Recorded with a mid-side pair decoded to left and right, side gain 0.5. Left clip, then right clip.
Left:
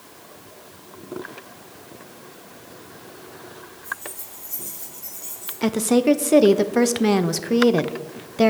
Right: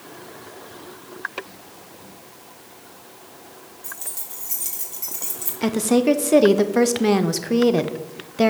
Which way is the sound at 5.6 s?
5° left.